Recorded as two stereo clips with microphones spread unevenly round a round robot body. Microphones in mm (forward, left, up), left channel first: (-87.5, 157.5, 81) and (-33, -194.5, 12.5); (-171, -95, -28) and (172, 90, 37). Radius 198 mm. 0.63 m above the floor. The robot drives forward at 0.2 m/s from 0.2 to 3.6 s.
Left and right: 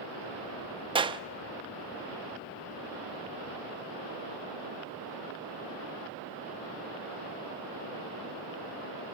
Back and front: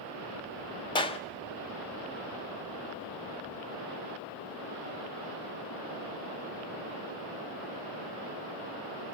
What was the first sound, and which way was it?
A clap, 110° right.